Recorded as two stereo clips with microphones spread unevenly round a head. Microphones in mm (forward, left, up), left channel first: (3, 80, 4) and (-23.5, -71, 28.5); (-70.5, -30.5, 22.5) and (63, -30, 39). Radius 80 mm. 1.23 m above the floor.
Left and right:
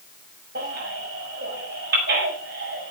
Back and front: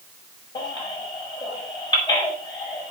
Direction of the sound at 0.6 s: 120° right.